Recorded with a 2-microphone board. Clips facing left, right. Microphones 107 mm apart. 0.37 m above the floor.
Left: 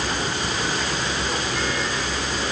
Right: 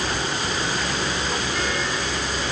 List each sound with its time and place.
Only background noise.